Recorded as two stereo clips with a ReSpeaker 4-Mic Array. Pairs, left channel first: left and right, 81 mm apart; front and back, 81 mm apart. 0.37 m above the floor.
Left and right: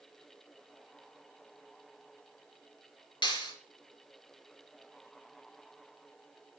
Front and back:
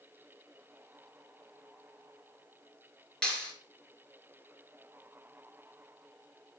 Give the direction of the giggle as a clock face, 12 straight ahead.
No giggle in this recording.